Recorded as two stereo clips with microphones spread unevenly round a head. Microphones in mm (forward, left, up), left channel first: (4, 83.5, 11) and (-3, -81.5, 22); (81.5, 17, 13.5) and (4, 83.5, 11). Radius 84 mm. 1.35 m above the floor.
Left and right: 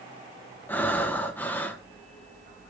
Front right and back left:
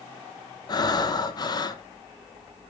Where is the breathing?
5° left, 1.0 m.